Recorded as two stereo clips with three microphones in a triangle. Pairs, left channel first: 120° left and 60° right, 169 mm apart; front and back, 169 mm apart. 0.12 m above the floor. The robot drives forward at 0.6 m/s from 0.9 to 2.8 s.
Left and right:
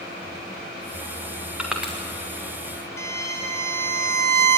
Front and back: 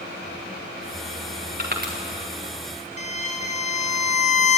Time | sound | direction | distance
1.6 | crushing | 145° right | 3.5 m
3.0 | a violin | 45° left | 2.5 m